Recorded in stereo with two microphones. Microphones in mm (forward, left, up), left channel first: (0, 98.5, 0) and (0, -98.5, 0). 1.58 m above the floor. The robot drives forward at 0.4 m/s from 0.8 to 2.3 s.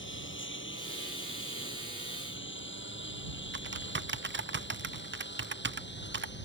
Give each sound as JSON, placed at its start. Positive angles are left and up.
{"t": 0.0, "sound": "a lawn mower", "side_deg": 75}
{"t": 3.5, "sound": "typing on a keyboard", "side_deg": -70}